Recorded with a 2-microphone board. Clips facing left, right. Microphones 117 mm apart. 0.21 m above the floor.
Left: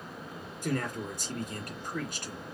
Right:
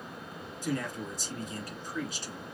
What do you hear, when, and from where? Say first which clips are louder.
0.6 s a man speaking: left 1 dB; 60° left (ahead or behind), 2.0 m